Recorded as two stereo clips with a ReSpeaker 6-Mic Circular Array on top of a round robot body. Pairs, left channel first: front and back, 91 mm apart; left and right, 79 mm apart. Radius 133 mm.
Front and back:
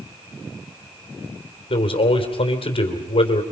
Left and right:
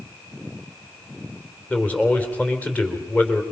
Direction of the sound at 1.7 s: 15° left.